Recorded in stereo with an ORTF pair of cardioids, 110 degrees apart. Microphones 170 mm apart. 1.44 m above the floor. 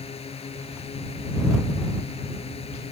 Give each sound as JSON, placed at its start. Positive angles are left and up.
{"t": 0.0, "sound": "a drone", "azimuth_deg": 35}